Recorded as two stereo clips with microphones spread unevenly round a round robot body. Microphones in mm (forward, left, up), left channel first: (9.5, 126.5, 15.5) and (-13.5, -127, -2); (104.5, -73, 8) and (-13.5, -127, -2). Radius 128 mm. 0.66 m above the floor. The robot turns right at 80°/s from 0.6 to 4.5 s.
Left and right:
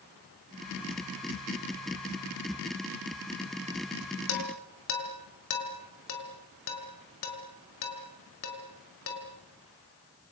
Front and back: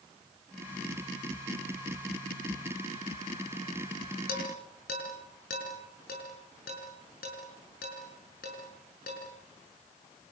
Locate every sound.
4.3 s dishes clattering: 50° left, 5 m; by 9.2 s 70° left, 5 m